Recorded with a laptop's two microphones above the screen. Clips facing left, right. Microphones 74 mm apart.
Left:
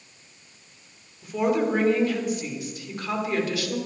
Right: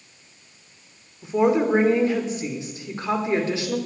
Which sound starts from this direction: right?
A woman speaking, at 1.2 s.